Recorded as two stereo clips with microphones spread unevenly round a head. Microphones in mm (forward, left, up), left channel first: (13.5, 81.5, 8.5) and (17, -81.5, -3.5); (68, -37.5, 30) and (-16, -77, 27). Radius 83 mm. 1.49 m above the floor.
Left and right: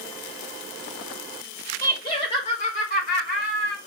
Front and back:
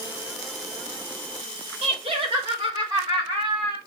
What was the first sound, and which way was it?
Laughter, 160° left.